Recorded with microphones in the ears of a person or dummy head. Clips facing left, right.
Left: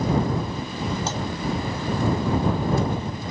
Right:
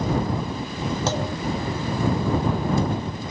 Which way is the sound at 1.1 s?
60° right (ahead or behind).